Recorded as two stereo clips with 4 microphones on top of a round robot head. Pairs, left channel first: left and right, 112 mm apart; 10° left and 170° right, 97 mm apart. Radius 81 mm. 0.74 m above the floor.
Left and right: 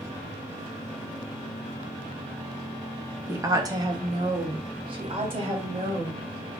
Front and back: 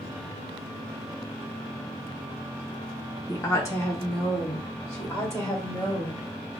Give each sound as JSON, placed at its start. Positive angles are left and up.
{"t": 3.3, "sound": "a woman speaking", "azimuth_deg": -35, "distance_m": 1.0}